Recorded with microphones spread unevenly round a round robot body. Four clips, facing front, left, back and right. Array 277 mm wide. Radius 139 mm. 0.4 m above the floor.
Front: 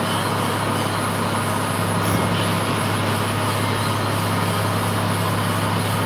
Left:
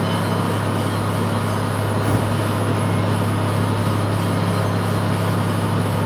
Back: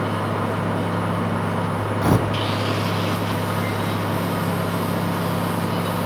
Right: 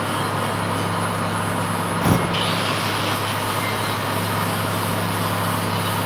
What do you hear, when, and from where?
2.0 s tearing paper: 125° right, 4.5 m